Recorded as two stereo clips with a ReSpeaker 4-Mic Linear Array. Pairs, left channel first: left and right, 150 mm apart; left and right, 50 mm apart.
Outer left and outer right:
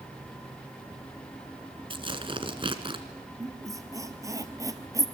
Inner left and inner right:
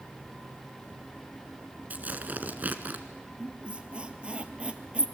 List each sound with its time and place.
1.9 s tearing paper: 35° right (ahead or behind), 1.5 m
3.4 s a squeak: 20° right (ahead or behind), 1.3 m